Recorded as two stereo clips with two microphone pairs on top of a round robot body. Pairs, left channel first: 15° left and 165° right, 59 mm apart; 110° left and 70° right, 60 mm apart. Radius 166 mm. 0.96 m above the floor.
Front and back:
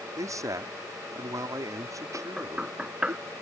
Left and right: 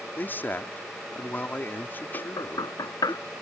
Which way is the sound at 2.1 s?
120° left.